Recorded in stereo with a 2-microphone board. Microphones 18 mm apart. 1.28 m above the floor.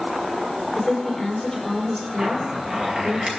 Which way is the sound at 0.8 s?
15° left (ahead or behind).